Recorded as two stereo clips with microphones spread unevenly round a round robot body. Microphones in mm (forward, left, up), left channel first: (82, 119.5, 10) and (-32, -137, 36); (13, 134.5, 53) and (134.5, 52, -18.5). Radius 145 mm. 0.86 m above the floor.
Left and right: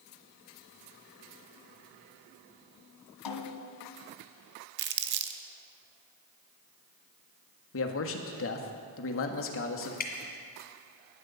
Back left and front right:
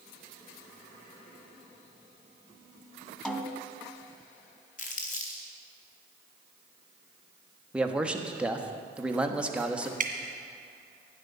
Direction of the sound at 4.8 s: 170° right.